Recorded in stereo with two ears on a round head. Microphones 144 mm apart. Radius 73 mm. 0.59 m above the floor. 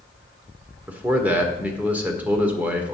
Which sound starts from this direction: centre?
A man speaking, at 0.9 s.